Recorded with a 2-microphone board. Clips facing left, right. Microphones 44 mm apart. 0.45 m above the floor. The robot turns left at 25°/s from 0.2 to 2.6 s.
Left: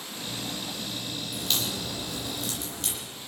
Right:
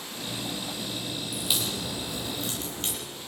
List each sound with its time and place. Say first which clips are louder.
1.3 s a crack: even; 5° right (ahead or behind), 8.5 m; by 3.0 s 40° right (ahead or behind), 8.5 m